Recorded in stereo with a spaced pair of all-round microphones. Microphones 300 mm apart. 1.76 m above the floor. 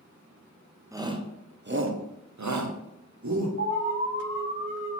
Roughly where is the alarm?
Right.